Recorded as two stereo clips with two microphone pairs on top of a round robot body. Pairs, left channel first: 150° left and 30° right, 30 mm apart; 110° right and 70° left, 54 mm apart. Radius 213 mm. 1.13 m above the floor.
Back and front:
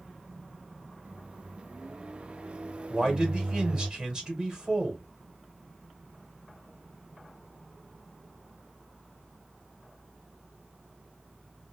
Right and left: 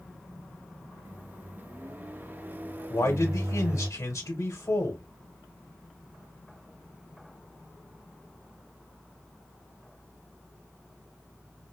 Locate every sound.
1.1 s a microwave: 10° left, 0.6 m
2.9 s a man speaking: 90° right, 1.4 m